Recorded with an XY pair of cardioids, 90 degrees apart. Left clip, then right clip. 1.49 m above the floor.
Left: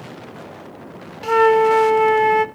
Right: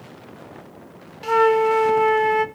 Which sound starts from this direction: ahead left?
A flute, at 1.2 s.